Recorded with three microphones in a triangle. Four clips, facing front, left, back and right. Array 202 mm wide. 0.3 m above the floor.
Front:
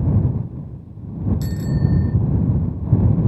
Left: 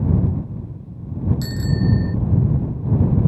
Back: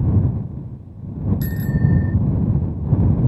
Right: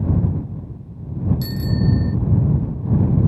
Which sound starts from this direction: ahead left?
A bicycle bell, at 1.4 s.